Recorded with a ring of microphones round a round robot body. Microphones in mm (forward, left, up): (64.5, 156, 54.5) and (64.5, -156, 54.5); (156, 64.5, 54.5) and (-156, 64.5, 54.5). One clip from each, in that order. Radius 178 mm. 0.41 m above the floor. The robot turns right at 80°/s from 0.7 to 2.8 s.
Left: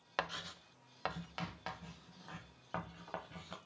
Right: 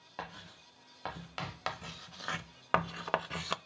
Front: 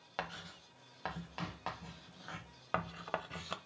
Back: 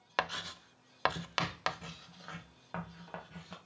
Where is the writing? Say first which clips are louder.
Left 5 dB, back 8 dB; 130° left, 0.5 m; by 3.6 s 60° right, 0.5 m.